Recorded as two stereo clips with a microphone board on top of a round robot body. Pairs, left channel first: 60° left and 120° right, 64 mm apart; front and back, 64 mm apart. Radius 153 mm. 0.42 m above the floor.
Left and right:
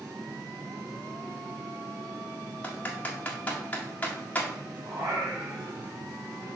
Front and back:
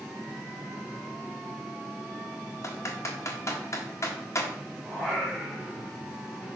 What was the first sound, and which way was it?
Typing on a keyboard, straight ahead.